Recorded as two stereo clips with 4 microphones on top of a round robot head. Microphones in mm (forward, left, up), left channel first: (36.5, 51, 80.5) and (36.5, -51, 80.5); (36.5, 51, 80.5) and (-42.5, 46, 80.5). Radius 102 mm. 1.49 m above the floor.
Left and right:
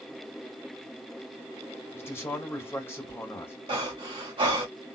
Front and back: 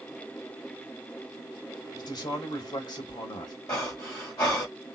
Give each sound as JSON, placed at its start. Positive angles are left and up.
{"t": 1.9, "sound": "a man speaking", "azimuth_deg": 25, "distance_m": 2.5}
{"t": 3.7, "sound": "breathing", "azimuth_deg": -55, "distance_m": 1.6}